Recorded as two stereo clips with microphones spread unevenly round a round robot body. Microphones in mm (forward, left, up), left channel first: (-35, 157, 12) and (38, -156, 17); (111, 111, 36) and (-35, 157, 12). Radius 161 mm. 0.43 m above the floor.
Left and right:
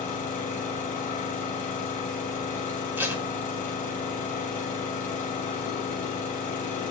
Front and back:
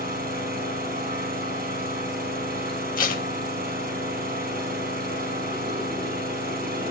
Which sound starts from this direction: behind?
An engine running, at 0.0 s.